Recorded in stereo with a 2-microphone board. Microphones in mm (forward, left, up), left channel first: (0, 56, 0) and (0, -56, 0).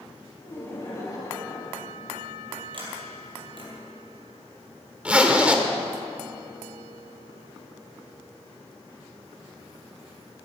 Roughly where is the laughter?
Left.